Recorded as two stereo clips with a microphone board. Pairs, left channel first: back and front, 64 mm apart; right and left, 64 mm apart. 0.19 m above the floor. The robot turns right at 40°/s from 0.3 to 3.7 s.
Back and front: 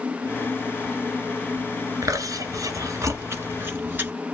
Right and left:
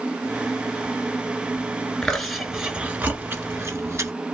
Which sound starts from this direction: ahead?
Chewing, at 2.0 s.